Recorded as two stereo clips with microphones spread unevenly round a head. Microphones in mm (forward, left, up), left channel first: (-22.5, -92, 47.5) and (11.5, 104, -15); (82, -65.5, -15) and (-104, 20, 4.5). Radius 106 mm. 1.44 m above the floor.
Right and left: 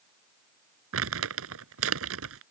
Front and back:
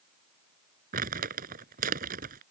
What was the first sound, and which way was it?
Crumpling, 105° left.